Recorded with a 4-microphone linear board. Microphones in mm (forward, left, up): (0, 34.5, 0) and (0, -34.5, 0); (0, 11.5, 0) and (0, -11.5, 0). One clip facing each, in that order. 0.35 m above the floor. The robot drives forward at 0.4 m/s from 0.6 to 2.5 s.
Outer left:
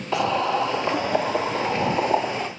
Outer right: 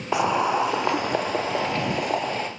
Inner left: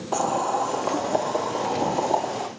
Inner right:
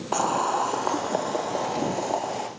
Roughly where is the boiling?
Centre.